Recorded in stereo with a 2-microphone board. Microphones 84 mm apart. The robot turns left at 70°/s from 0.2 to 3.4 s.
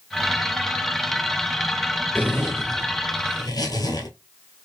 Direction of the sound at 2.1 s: 155° left.